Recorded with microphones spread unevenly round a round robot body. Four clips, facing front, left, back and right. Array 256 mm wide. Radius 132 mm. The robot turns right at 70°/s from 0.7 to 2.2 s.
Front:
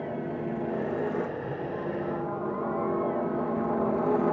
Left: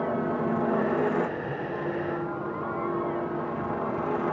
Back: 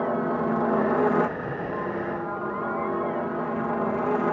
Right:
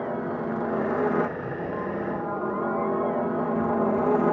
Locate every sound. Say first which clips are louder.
0.0 s a helicopter: left 2 dB, back 7 dB; 165° left; by 4.3 s 90° right